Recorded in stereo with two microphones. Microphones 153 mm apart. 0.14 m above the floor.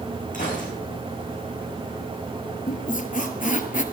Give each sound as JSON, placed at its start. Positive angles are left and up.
{"t": 0.3, "sound": "a gunshot", "side_deg": 60, "distance_m": 6.0}
{"t": 2.7, "sound": "a squeak", "side_deg": 60, "distance_m": 1.1}